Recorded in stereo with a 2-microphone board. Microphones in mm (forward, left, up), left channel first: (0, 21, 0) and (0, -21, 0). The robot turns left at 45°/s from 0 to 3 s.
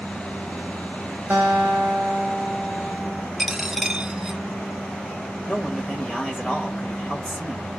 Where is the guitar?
130° right, 1.5 m; by 3.3 s 155° left, 1.5 m.